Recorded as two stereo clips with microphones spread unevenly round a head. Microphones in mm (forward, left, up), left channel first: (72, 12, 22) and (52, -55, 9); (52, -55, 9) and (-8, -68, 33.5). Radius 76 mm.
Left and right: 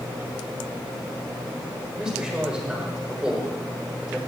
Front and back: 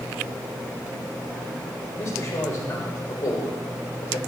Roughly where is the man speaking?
Ahead right.